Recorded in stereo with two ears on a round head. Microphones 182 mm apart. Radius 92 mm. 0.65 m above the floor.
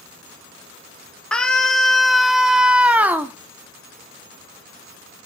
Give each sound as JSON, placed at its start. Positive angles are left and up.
{"t": 1.3, "sound": "a scream", "side_deg": 5, "distance_m": 2.0}